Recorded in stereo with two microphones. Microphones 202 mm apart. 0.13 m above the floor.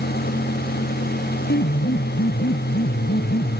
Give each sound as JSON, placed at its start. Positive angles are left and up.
{"t": 1.5, "sound": "a piano", "side_deg": 65}